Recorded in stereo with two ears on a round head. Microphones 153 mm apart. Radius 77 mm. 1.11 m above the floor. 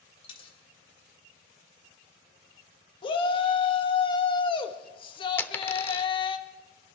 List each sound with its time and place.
0.2 s a dropped coin: 35° left (ahead or behind), 2.5 m
3.0 s a shout: 30° left (ahead or behind), 1.6 m
5.4 s a dropped coin: 15° left (ahead or behind), 0.8 m